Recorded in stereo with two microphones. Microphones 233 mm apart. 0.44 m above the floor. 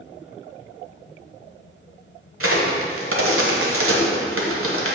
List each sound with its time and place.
2.4 s a crack: 70° right (ahead or behind), 1.3 m